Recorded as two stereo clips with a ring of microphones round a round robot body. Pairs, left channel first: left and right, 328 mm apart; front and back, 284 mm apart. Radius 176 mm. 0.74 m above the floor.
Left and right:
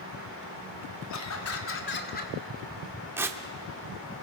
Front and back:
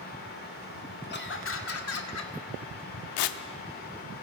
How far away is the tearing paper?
About 0.8 m.